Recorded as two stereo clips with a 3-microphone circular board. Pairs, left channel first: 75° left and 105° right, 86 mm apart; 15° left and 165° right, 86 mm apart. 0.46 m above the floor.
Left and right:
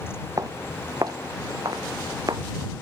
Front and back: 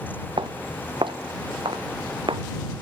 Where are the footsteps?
150° right; by 2.4 s 145° right.